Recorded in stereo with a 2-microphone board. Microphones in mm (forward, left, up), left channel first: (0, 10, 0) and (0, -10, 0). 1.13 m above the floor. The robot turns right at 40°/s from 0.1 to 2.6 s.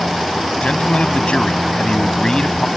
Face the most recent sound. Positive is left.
turn(degrees=145)